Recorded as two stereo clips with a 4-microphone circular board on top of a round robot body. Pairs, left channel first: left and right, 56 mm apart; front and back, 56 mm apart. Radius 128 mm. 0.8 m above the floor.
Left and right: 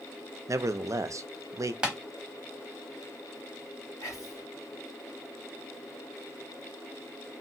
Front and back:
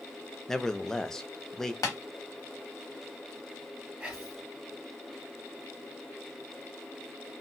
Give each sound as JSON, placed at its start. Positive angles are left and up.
{"t": 0.5, "sound": "a man speaking", "azimuth_deg": -80, "distance_m": 0.6}
{"t": 1.8, "sound": "tapping", "azimuth_deg": -15, "distance_m": 0.9}
{"t": 4.0, "sound": "whispering", "azimuth_deg": 110, "distance_m": 2.0}